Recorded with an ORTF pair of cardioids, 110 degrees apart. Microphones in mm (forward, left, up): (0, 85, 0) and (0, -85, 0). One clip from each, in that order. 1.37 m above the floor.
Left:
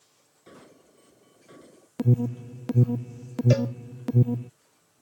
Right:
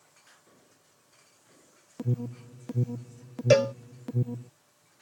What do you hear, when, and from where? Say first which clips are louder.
0.5 s an alarm: left 10 dB; 65° left
2.0 s an alarm: left 8 dB; 35° left
3.5 s a cowbell: right 7 dB; 30° right